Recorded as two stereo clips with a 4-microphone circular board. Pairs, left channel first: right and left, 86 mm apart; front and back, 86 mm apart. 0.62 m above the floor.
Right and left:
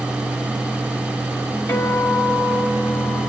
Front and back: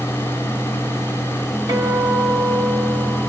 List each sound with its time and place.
1.7 s a guitar: 155° right, 2 m